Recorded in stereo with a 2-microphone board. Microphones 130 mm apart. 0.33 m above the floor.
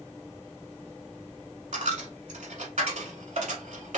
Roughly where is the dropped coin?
Right.